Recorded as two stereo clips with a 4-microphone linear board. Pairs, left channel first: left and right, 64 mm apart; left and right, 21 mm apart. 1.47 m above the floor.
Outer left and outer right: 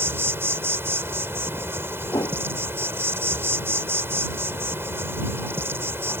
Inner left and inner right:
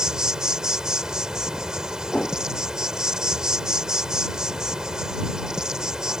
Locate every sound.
0.0 s an insect: 40° right (ahead or behind)
2.1 s a whoosh: 75° left (ahead or behind)